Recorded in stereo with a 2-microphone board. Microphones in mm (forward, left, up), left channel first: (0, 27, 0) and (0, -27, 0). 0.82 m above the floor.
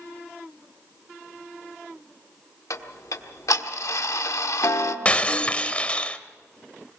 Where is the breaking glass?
25° left (ahead or behind), 0.7 m.